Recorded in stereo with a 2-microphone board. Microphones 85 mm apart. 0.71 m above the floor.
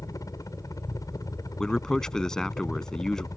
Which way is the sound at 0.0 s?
45° left (ahead or behind).